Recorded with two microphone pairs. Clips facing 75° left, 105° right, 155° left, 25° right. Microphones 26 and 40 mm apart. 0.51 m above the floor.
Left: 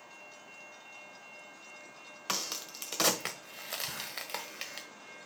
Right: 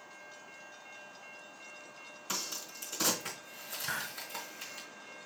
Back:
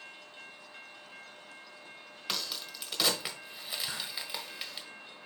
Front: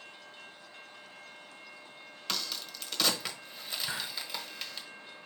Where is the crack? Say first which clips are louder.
Left 3 dB, even; 75° left, 1.3 m.